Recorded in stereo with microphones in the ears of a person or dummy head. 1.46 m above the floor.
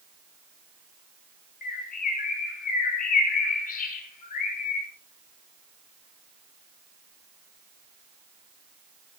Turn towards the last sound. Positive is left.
turn(degrees=45)  # may be behind; listen again after turning